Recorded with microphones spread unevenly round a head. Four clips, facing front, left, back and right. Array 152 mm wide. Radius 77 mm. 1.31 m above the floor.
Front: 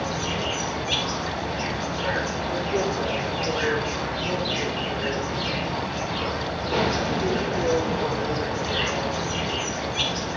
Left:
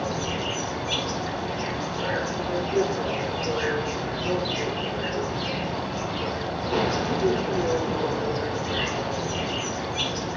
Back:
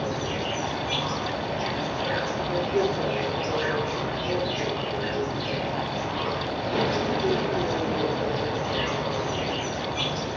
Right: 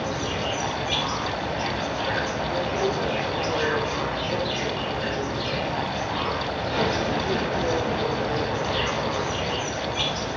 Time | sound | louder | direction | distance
0.0 | an insect | right 1 dB, front 1 dB | 45° left | 1.8 m